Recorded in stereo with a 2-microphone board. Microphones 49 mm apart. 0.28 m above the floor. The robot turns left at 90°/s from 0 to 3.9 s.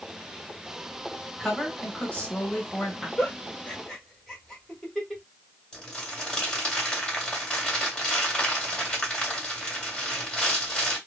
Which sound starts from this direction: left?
A giggle, at 3.2 s.